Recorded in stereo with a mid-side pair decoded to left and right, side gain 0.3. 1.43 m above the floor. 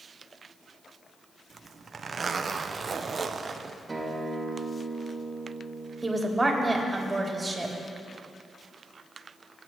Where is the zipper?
50° right, 0.7 m.